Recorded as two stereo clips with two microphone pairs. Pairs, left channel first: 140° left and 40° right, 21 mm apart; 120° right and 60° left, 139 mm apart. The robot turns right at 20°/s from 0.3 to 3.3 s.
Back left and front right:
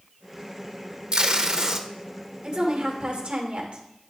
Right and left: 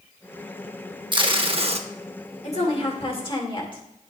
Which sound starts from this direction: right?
A woman speaking, at 2.4 s.